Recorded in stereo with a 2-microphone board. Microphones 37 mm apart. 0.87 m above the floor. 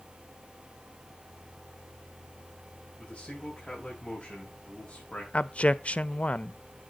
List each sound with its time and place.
3.0 s a man speaking: 15° left (ahead or behind), 5.5 m
5.3 s a man speaking: 35° left (ahead or behind), 0.5 m